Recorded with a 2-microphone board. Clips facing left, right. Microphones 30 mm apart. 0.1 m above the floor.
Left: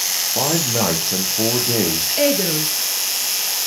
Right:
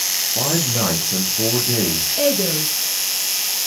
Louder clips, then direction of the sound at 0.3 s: Left 2 dB; 40° left (ahead or behind).